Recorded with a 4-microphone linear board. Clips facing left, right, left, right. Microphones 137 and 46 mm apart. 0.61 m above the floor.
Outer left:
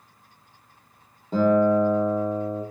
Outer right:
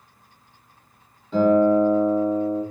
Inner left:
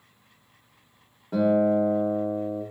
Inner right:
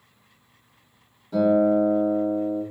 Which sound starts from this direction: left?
A guitar, at 1.3 s.